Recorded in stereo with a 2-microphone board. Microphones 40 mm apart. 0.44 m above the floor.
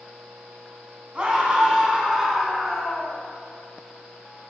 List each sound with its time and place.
1.1 s a scream: 25° right (ahead or behind), 3 m; by 3.2 s 5° right (ahead or behind), 4 m